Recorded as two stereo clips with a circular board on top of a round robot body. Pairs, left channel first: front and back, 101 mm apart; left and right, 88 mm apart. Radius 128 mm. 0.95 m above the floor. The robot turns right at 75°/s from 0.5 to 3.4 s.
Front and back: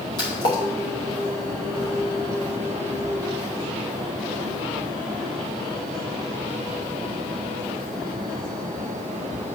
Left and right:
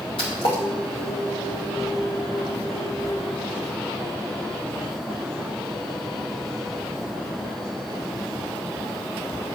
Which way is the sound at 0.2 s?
45° left.